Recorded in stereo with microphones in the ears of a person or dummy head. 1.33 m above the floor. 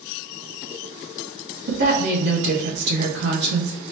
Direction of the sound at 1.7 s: 70° right (ahead or behind).